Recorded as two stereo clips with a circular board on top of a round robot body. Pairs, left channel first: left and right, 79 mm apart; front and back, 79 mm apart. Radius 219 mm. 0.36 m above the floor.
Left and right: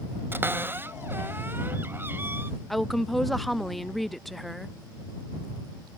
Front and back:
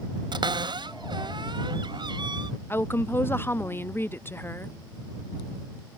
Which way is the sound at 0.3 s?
155° right.